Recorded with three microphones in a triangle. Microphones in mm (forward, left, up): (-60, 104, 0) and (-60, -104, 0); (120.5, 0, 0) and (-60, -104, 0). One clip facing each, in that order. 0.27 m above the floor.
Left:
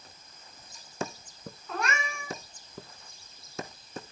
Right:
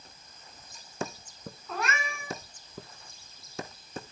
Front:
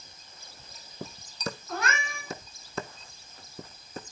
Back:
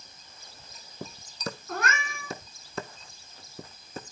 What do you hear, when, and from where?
1.7 s a cat meowing: straight behind, 1.3 m